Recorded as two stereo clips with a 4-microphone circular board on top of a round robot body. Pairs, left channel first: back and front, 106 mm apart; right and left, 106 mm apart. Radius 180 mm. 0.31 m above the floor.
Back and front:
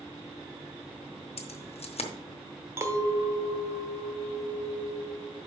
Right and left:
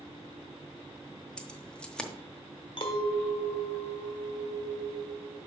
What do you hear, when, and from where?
1.4 s keys jangling: 170° right, 1.2 m
2.8 s a clink: 60° right, 1.4 m